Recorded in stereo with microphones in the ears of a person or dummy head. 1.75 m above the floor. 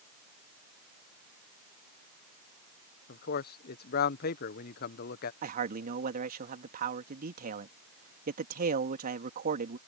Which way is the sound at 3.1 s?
55° left (ahead or behind).